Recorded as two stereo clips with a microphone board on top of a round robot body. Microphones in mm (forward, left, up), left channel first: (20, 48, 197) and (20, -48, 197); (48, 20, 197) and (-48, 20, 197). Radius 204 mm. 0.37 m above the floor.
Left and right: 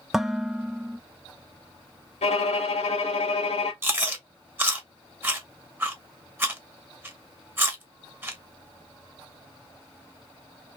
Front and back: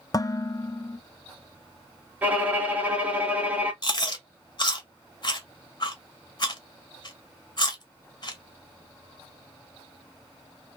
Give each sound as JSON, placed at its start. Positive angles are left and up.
{"t": 0.1, "sound": "dishes clattering", "azimuth_deg": -5, "distance_m": 0.5}
{"t": 2.2, "sound": "a violin", "azimuth_deg": 105, "distance_m": 0.7}
{"t": 3.8, "sound": "chewing", "azimuth_deg": -25, "distance_m": 1.3}